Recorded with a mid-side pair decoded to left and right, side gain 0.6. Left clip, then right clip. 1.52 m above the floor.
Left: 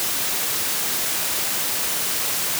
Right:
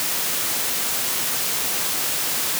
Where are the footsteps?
I don't hear footsteps.